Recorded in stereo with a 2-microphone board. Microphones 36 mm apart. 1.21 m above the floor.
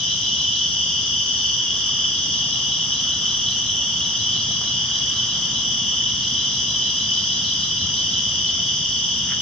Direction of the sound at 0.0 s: 25° left (ahead or behind).